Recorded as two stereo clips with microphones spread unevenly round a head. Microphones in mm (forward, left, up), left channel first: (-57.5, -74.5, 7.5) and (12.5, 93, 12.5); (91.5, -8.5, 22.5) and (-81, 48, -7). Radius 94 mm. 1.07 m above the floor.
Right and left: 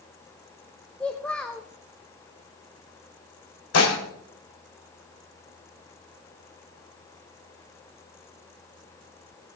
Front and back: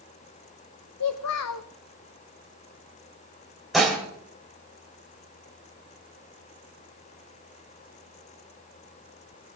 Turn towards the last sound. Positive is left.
turn(degrees=-110)